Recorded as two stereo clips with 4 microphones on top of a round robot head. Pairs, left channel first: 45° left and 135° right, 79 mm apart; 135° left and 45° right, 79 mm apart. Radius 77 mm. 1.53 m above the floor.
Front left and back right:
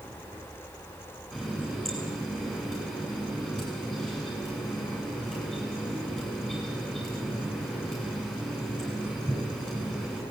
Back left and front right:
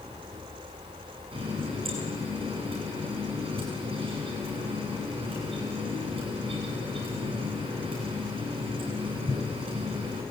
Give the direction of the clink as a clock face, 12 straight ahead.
No clink in this recording.